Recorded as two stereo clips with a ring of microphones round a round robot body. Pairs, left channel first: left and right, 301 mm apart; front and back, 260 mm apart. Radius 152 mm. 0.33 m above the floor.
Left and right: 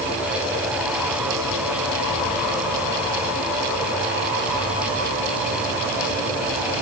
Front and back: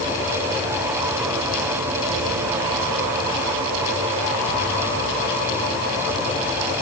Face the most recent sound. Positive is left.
No sound to turn to.